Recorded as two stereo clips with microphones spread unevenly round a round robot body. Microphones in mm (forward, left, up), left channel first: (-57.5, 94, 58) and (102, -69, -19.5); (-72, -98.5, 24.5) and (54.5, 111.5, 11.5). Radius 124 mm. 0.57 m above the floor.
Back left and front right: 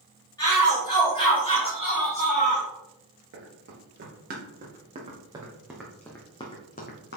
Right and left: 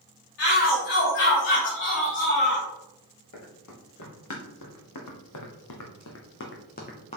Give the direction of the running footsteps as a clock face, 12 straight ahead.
3 o'clock.